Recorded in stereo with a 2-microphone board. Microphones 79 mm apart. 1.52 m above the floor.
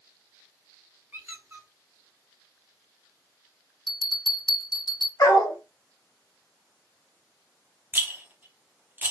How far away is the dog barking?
About 1.7 m.